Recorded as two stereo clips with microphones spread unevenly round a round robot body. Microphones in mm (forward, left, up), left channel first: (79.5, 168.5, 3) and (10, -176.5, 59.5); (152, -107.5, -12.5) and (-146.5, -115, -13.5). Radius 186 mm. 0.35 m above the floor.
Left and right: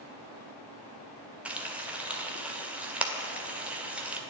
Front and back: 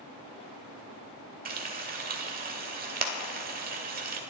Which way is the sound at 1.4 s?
160° left.